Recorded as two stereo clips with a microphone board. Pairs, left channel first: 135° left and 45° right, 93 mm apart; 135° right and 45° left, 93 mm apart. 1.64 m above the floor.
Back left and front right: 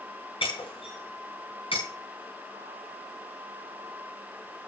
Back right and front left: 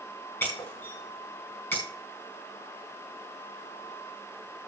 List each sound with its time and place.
0.4 s breaking glass: 155° left, 6 m